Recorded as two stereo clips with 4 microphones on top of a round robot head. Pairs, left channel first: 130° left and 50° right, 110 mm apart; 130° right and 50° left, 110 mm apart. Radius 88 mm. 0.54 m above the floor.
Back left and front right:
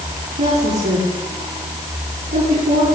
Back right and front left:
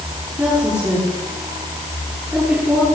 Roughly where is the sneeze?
No sneeze in this recording.